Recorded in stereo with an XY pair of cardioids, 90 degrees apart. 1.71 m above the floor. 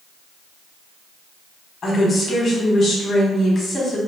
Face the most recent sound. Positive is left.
turn(degrees=55)